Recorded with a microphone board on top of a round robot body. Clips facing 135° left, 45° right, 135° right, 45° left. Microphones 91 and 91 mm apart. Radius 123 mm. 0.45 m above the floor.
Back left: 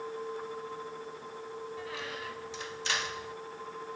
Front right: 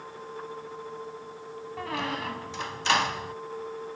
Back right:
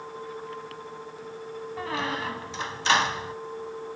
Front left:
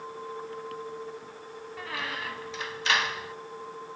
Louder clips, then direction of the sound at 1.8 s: Front right 8 dB, back right 5 dB; 75° right.